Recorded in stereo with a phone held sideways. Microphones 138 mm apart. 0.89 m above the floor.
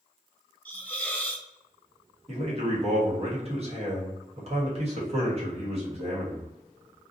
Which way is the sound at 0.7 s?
10° left (ahead or behind).